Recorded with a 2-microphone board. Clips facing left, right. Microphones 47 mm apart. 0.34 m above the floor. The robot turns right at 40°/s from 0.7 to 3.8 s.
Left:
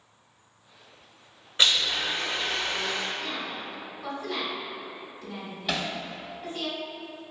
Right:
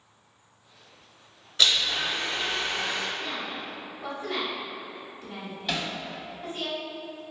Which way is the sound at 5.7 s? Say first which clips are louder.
Left 1 dB; centre (ahead or behind).